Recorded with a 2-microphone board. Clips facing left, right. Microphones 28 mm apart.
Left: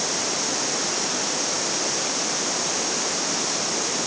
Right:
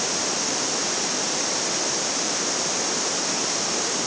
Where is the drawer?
No drawer in this recording.